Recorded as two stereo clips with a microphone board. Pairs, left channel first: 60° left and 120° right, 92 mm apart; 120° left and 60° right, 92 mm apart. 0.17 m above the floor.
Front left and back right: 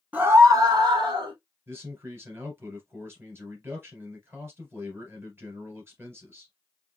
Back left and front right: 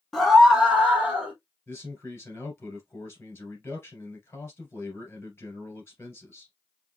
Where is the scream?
155° right, 1.0 m; by 1.3 s 135° right, 2.5 m.